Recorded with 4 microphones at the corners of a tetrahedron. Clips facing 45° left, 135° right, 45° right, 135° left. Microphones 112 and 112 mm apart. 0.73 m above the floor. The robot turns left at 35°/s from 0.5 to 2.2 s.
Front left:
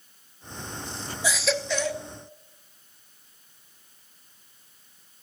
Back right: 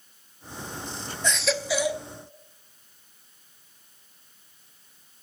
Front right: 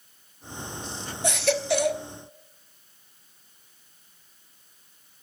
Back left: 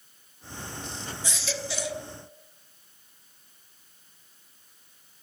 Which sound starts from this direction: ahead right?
A baby crying, at 1.2 s.